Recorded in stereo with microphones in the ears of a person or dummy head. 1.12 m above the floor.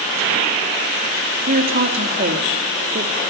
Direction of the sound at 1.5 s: 55° right (ahead or behind).